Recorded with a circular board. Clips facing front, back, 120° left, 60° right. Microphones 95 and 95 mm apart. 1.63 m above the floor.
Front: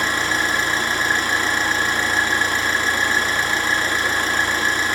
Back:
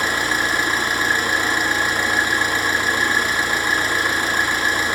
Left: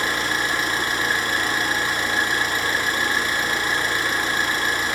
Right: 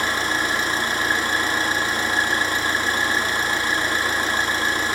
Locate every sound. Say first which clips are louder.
0.0 s an engine running: even, right 1 dB; 105° right, 1.6 m